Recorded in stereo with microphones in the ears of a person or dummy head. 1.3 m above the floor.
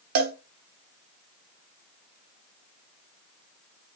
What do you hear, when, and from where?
0.1 s a cowbell: 50° right (ahead or behind), 0.6 m